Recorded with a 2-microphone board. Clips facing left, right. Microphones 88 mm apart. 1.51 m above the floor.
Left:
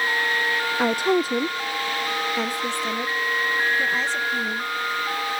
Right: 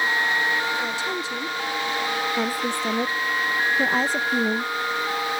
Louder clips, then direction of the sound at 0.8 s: Left 7 dB; 60° left (ahead or behind).